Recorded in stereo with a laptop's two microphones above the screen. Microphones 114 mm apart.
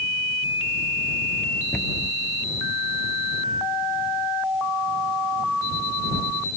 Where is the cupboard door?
10° left (ahead or behind).